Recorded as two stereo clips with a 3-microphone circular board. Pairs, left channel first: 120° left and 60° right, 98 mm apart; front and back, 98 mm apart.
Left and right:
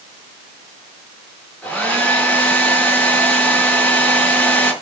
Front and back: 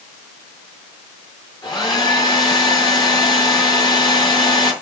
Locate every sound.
1.6 s a hair dryer: 40° left, 5 m